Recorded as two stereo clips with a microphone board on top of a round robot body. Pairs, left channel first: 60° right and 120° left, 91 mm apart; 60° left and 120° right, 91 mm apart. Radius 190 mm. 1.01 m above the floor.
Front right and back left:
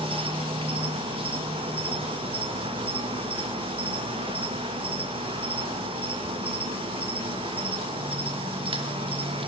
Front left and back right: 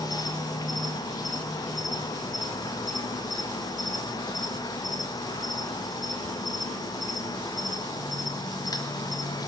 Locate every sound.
0.0 s an insect: 105° left, 1.8 m